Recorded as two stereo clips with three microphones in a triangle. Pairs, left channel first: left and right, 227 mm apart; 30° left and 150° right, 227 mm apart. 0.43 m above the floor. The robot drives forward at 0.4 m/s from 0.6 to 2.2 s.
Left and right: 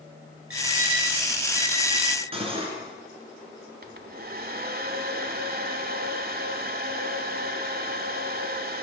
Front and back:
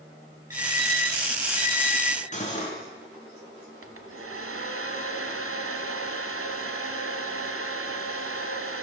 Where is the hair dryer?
140° right, 0.9 m.